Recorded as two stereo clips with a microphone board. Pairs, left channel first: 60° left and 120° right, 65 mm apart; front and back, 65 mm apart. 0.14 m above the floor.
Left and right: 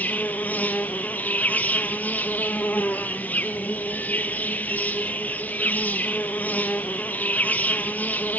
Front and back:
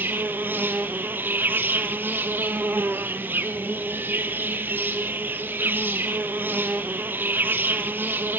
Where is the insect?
125° left, 0.9 m.